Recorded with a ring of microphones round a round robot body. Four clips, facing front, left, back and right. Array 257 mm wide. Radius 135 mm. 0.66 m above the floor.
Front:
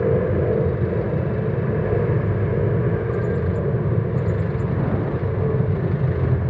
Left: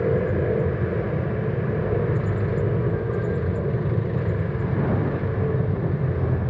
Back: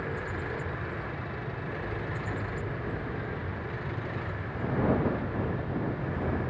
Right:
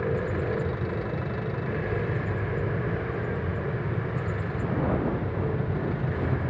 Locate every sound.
0.0 s an aircraft: 25° left